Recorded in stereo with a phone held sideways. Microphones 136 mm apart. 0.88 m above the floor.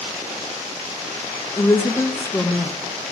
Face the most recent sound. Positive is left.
turn(degrees=15)  # may be behind; listen again after turning